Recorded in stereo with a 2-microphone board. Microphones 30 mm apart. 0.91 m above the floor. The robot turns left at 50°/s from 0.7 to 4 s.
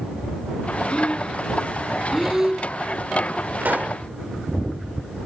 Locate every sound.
0.9 s breathing: 45° left (ahead or behind); by 2.7 s 30° right (ahead or behind)
3.6 s a pop: 75° right (ahead or behind); by 4.0 s 55° right (ahead or behind)